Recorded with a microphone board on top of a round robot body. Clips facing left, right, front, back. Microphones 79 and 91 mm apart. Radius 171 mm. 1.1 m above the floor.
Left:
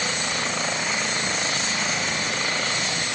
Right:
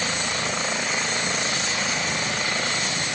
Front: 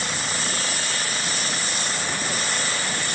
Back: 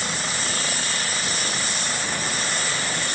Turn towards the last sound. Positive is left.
No sound to turn to.